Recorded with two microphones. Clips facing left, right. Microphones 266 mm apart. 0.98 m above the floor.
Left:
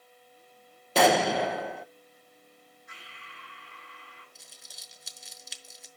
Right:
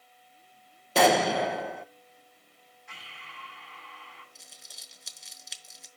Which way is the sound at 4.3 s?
Centre (ahead or behind).